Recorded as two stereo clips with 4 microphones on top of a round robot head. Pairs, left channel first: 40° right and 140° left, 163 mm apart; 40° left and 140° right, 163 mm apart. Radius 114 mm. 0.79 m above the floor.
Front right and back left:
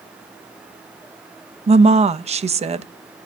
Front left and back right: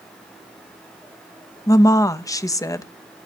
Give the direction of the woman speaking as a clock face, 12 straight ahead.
9 o'clock.